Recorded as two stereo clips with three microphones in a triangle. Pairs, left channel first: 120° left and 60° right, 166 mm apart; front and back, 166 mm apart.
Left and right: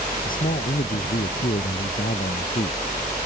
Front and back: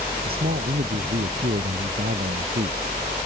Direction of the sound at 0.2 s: 155° left.